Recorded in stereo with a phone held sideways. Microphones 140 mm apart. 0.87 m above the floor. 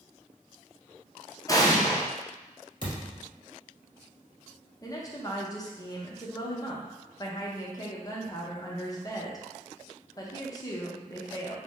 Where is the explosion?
25° left (ahead or behind), 0.6 m.